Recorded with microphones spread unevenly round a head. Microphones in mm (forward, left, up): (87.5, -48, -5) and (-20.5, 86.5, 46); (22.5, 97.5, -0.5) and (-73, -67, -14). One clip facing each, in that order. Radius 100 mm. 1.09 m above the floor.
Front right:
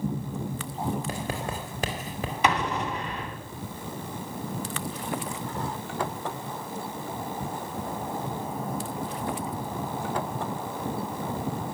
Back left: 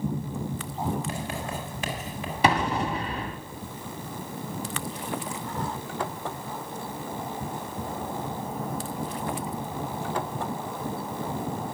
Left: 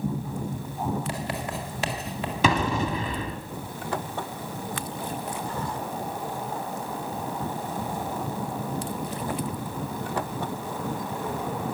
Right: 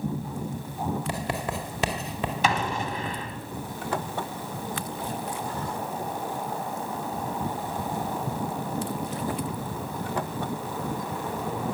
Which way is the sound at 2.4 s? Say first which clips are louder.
Back left 3 dB, left 5 dB; 70° left.